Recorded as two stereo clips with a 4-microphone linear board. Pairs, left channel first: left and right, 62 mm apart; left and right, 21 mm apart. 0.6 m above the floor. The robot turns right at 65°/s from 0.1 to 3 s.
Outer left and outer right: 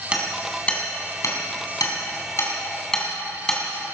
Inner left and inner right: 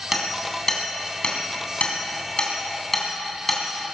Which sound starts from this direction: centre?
Hammering, at 0.1 s.